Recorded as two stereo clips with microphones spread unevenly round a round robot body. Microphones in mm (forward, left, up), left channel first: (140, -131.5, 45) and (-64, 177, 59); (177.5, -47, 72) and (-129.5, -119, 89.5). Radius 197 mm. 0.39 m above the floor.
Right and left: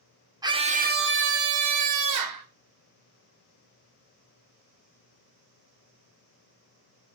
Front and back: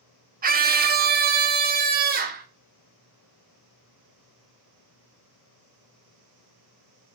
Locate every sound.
0.4 s a scream: 165° right, 1.3 m; by 2.5 s 135° left, 2 m